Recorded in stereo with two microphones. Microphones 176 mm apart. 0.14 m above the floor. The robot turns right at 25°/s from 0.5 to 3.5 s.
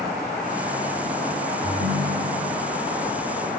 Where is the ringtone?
15° left (ahead or behind), 5 m; by 2.6 s 10° right (ahead or behind), 5 m.